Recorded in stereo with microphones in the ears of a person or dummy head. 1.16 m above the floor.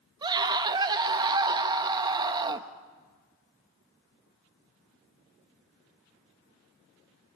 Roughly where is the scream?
Right.